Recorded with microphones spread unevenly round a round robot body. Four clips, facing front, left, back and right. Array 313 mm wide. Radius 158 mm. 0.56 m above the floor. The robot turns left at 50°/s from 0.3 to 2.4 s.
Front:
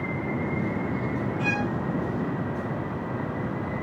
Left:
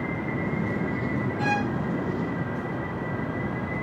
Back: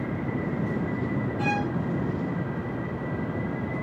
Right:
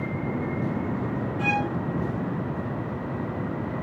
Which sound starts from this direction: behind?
A violin, at 1.4 s.